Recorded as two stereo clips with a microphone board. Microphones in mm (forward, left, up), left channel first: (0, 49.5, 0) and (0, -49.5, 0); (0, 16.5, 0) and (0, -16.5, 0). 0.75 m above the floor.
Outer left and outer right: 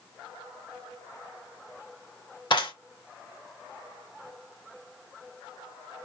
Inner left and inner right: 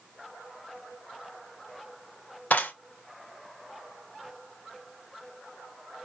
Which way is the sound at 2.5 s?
55° left (ahead or behind).